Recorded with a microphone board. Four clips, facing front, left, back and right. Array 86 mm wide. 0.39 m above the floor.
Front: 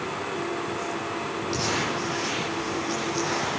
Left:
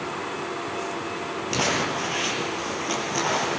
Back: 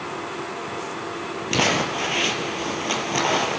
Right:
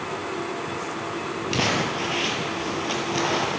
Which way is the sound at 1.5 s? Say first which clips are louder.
Even, back 7 dB; 175° right.